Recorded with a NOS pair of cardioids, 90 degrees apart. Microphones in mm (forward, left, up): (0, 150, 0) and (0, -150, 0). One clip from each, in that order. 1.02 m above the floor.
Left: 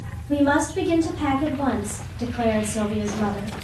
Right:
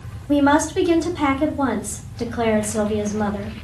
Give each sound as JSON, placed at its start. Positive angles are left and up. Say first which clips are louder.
{"t": 0.3, "sound": "a woman speaking", "louder": "right 3 dB", "azimuth_deg": -65, "distance_m": 1.8}